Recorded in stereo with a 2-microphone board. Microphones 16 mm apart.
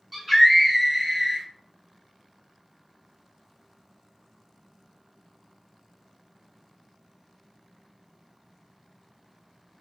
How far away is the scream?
About 1.2 m.